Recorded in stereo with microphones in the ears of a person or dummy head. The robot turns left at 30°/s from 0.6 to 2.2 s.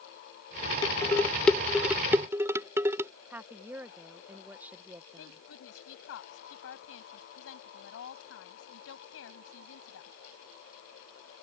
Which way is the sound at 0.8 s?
25° left (ahead or behind).